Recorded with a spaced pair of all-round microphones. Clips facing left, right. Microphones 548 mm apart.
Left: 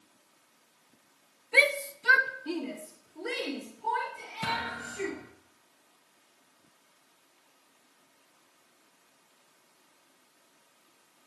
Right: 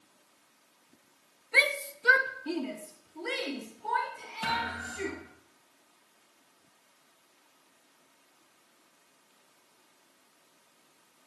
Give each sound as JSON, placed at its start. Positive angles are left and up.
{"t": 1.5, "sound": "a shout", "side_deg": 55, "distance_m": 1.0}
{"t": 4.4, "sound": "a thud", "side_deg": 45, "distance_m": 3.5}